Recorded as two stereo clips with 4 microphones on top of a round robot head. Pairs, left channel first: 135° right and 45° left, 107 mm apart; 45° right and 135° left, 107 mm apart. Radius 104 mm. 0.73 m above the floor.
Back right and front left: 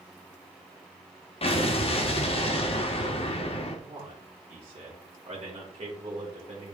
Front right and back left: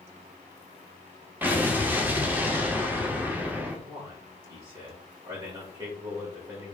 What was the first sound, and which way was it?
An explosion, 155° right.